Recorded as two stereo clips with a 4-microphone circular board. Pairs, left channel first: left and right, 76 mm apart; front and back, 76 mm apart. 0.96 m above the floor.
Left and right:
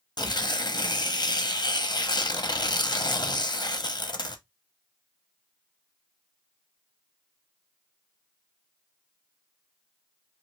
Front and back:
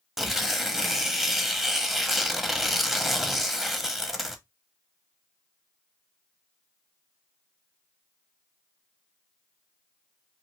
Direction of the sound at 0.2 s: 95° left.